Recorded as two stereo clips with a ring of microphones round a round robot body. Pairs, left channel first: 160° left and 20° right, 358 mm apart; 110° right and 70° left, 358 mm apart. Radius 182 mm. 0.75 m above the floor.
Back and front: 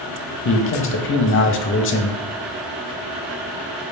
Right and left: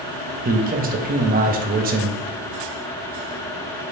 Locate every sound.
0.5 s a man speaking: 120° left, 0.6 m